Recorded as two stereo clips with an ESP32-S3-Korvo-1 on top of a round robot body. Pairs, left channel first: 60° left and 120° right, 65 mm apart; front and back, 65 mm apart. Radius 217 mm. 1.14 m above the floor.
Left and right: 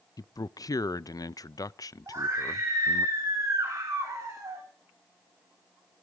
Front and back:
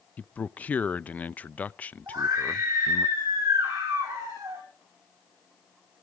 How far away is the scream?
About 3.5 m.